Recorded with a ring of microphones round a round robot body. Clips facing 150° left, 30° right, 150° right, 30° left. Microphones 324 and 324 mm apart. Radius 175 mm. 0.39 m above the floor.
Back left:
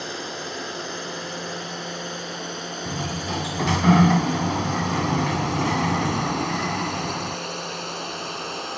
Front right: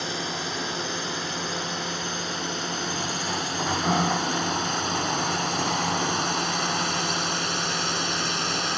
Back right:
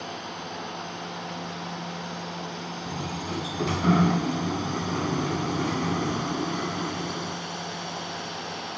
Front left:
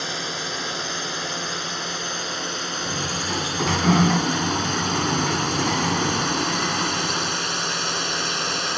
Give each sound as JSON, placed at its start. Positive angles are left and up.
{"t": 0.0, "sound": "a drone", "azimuth_deg": 45}
{"t": 2.9, "sound": "a sliding door", "azimuth_deg": 110}